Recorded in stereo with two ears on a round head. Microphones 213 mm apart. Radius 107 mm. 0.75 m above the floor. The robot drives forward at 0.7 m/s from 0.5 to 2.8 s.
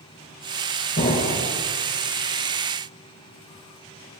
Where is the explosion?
40° left (ahead or behind), 3.5 m; by 1.5 s 45° left (ahead or behind), 3.5 m.